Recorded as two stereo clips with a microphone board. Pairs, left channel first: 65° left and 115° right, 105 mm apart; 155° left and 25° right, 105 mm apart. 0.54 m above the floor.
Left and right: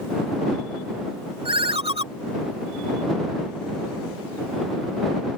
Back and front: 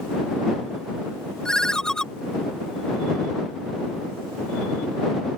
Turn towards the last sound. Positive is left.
turn(degrees=-120)